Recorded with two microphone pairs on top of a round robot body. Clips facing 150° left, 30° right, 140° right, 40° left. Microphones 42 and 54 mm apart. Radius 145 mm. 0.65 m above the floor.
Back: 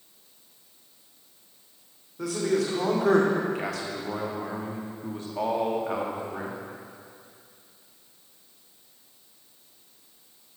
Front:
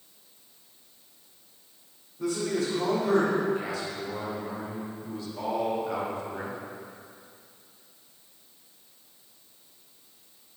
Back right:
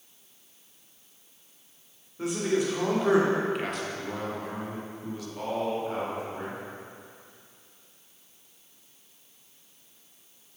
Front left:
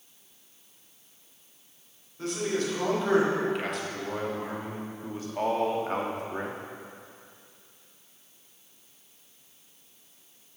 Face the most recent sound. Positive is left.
turn(degrees=65)